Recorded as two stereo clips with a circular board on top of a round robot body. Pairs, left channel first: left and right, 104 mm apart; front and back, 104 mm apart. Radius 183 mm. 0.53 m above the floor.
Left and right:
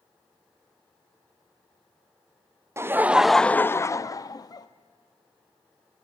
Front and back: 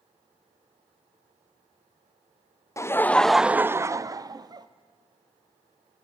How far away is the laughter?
About 0.7 m.